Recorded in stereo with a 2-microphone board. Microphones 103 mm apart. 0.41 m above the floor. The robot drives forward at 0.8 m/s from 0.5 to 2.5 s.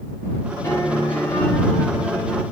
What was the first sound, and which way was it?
A piano, 25° left (ahead or behind).